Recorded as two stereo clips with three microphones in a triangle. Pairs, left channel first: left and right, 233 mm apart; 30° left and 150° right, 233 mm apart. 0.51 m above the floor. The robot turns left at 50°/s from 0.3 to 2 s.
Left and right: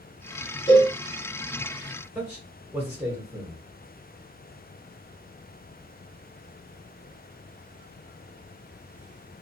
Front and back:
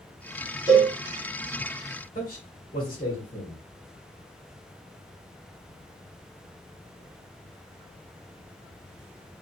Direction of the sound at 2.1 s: 10° right.